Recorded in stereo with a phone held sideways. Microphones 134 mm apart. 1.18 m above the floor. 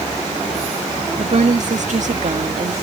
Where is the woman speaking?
65° right (ahead or behind).